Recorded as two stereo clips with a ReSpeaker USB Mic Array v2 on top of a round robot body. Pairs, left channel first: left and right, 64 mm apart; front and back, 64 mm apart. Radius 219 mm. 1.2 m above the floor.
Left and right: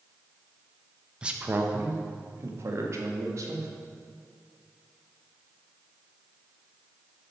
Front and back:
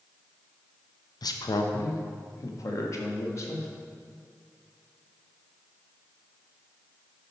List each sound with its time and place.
1.2 s a man speaking: 15° right, 1.0 m; by 3.7 s 50° right, 2.0 m